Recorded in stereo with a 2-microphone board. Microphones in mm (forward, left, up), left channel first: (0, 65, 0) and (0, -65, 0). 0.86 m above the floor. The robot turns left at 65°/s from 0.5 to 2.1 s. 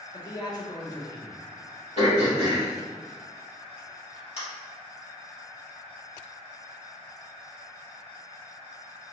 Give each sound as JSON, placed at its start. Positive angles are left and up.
{"t": 0.1, "sound": "a man speaking", "azimuth_deg": 100, "distance_m": 0.7}
{"t": 2.0, "sound": "throat clearing", "side_deg": 55, "distance_m": 1.8}